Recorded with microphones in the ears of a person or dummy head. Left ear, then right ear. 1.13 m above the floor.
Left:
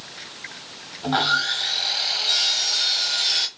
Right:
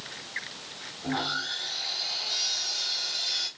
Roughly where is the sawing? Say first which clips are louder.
Left 10 dB; left.